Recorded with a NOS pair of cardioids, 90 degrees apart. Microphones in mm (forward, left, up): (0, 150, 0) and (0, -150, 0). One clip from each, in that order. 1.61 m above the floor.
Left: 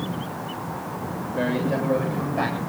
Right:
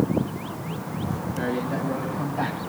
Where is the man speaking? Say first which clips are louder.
Left 4 dB; 45° left, 8.5 m.